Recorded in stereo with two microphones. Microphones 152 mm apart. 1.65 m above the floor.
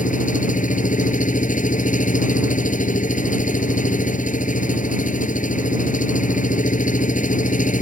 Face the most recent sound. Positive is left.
turn(degrees=60)  # may be behind; listen again after turning